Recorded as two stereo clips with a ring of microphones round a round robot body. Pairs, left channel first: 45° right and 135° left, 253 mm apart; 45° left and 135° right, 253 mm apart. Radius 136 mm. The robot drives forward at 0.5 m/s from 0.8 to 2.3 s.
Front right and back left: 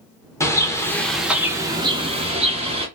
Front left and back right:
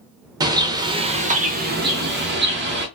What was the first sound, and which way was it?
A bird, 100° right.